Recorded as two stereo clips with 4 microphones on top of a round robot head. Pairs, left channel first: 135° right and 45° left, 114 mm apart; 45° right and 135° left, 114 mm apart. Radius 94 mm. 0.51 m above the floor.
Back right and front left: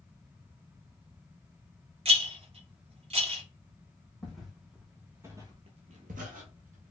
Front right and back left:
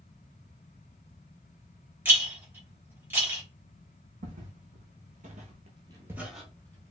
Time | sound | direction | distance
2.0 | a rattle | 65° left | 1.9 m
4.2 | footsteps | 140° left | 2.0 m